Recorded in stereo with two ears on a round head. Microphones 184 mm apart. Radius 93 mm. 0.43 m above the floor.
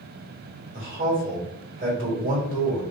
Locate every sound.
0.7 s a man speaking: 40° right (ahead or behind), 1.8 m